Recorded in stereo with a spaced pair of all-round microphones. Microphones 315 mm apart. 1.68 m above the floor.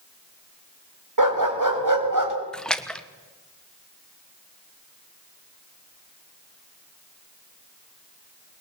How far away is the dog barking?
About 4.5 m.